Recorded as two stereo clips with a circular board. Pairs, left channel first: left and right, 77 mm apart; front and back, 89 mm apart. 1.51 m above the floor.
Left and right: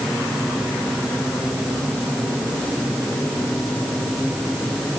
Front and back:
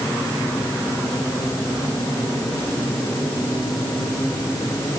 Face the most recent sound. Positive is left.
No sound to turn to.